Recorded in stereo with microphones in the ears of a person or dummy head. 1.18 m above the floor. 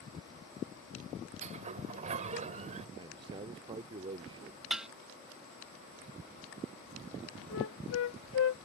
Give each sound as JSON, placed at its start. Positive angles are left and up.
{"t": 1.4, "sound": "a sliding door", "side_deg": -40}
{"t": 3.0, "sound": "a man speaking", "side_deg": -30}
{"t": 4.7, "sound": "dishes clattering", "side_deg": -5}
{"t": 7.5, "sound": "a flute", "side_deg": 80}